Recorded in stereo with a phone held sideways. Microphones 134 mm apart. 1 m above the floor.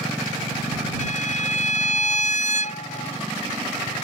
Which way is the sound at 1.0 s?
60° left (ahead or behind).